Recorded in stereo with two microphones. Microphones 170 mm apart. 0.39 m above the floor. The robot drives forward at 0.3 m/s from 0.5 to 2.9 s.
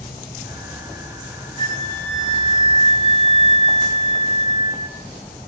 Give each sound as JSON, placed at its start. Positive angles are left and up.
{"t": 1.6, "sound": "a flute", "side_deg": 45, "distance_m": 1.8}